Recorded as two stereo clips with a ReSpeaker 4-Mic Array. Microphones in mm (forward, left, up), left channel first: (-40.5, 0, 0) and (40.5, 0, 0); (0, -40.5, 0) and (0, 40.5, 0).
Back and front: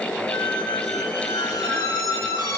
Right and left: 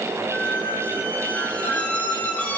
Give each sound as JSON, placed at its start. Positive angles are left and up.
{"t": 0.3, "sound": "a squeak", "azimuth_deg": -160, "distance_m": 0.6}